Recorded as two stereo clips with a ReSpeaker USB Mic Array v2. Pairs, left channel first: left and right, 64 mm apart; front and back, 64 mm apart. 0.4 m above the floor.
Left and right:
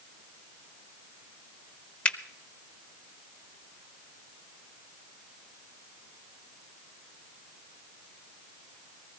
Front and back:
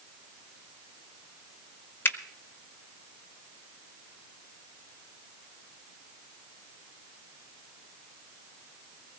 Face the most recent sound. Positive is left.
turn(degrees=30)